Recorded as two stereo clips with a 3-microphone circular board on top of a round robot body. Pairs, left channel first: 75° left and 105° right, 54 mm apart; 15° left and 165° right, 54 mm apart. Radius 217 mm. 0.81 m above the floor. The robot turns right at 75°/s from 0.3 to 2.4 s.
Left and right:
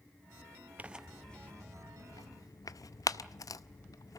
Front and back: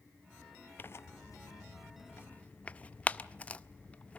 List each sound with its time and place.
0.8 s tearing paper: 40° right, 0.6 m; by 4.2 s 80° left, 0.6 m